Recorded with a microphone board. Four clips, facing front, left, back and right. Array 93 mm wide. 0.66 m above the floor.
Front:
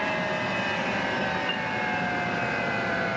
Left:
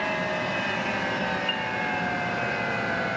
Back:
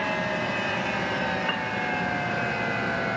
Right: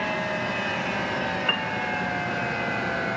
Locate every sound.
1.5 s a piano: 115° right, 0.7 m